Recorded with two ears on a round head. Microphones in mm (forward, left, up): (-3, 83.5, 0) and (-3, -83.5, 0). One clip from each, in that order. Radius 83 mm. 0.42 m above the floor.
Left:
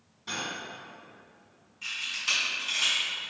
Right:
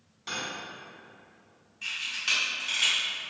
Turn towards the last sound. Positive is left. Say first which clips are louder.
# even
turn(degrees=-15)  # may be behind; listen again after turning